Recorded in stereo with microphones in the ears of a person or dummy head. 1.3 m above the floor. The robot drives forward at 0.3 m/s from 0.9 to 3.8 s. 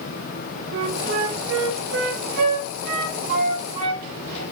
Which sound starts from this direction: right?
A flute, at 0.7 s.